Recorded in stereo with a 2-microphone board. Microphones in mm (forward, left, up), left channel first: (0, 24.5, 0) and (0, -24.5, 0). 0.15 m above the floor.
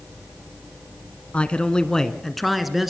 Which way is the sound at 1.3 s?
25° left (ahead or behind).